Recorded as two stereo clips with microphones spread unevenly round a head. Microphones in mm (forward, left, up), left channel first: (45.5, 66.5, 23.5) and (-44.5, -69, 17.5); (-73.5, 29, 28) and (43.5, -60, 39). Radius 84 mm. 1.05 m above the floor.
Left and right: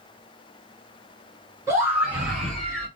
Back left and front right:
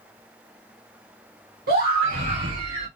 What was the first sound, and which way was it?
A scream, 50° right.